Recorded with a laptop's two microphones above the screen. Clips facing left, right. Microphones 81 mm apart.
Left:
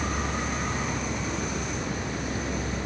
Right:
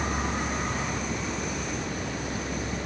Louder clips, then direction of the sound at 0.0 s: Even; 30° right (ahead or behind).